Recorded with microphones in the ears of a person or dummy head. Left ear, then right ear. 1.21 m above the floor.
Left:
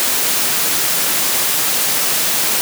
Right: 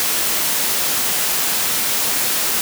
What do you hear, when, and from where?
Only background noise.